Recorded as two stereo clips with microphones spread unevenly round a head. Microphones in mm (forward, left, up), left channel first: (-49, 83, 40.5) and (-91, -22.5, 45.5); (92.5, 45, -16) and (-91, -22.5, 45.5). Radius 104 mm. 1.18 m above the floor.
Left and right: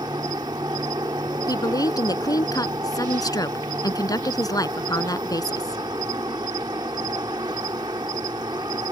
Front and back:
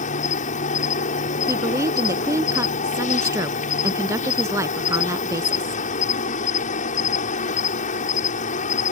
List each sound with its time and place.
0.0 s an insect: 40° right
1.5 s a woman speaking: 125° left